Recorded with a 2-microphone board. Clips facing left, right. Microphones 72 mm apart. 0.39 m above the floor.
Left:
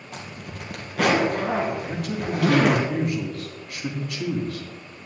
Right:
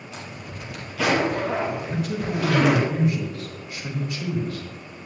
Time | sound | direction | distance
0.1 | a zipper | 50° left (ahead or behind) | 2.5 m
1.9 | a man speaking | 65° left (ahead or behind) | 3 m